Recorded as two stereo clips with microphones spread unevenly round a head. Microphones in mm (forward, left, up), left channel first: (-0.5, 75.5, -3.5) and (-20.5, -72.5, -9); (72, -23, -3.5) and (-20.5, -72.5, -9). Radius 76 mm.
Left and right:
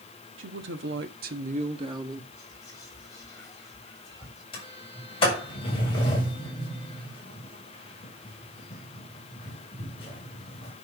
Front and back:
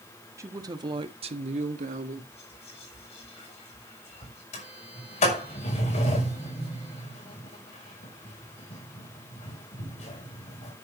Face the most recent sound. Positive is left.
turn(degrees=25)